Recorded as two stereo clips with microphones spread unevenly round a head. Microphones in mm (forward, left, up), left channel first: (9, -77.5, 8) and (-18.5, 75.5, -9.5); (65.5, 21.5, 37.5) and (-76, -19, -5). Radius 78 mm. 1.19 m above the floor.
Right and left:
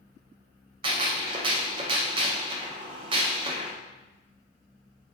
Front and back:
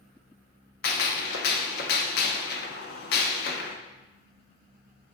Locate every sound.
0.8 s a gunshot: 40° left, 0.5 m